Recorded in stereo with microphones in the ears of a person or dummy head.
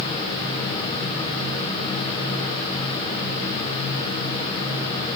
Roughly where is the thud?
I don't hear a thud.